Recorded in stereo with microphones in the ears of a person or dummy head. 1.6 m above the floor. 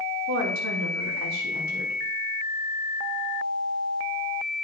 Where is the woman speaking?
85° right, 3 m.